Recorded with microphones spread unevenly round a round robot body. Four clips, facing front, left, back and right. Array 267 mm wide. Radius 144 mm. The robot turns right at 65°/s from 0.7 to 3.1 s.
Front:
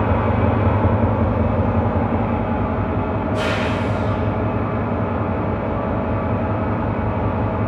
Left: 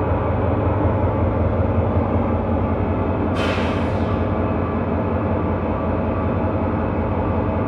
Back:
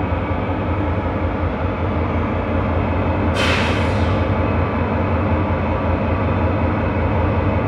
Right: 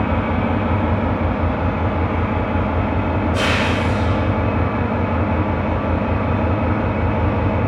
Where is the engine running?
5° left, 2.0 m; by 7.7 s 160° left, 2.0 m.